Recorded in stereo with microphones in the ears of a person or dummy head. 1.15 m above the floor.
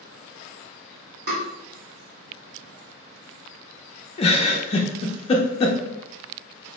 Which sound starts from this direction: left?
A giggle, at 4.2 s.